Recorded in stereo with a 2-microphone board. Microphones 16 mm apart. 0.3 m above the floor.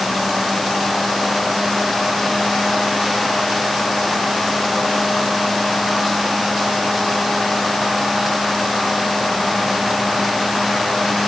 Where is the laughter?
I don't hear laughter.